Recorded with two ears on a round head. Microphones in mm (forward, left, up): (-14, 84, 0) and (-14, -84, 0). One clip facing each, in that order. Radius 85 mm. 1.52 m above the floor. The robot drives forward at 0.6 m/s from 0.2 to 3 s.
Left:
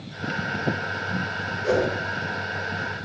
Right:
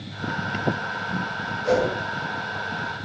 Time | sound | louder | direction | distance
1.6 | a whoosh | right 1 dB | 70° left (ahead or behind) | 5 m